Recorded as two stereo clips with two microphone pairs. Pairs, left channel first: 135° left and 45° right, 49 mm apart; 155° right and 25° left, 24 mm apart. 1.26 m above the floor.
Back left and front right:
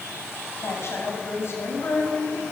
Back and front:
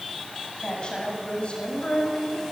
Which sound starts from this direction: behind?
A woman speaking, at 0.6 s.